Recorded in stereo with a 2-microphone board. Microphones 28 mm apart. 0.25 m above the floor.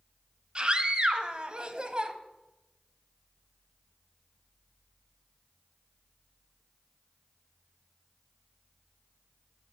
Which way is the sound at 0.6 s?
35° right (ahead or behind).